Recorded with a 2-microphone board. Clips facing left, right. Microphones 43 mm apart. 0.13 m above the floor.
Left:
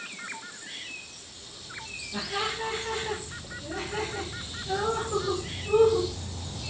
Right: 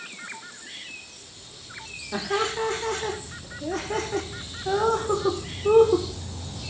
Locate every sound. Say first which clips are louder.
2.1 s laughter: right 6 dB; 75° right (ahead or behind), 7 m; by 6.1 s 70° right (ahead or behind), 5.5 m